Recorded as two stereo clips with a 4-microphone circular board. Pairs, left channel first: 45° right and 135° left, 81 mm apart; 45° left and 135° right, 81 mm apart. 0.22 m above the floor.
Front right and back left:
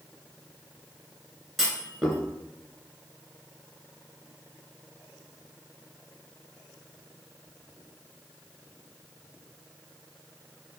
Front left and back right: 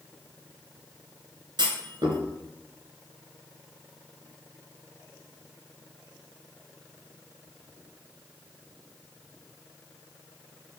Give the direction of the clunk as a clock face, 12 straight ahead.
4 o'clock.